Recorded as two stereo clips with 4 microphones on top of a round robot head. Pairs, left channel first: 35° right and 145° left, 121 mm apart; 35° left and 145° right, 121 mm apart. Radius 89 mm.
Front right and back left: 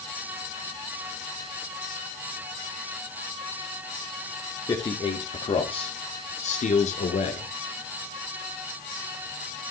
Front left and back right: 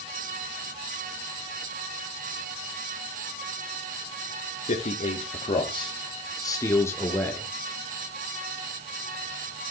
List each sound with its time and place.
4.7 s a man speaking: 25° left, 2 m; by 7.5 s 45° right, 2.5 m